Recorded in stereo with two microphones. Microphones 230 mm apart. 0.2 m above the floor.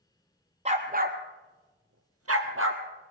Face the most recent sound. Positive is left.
turn(degrees=-55)  # may be behind; listen again after turning